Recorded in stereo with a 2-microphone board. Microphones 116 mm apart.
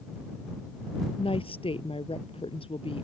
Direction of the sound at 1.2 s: 50° left (ahead or behind).